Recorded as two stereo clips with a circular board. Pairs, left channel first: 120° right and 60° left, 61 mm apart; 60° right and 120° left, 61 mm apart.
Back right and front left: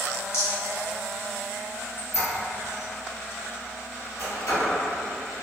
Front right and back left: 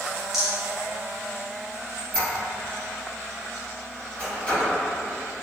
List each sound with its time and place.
0.3 s a rattle: 155° right, 1.1 m
2.0 s a squeak: 130° right, 1.7 m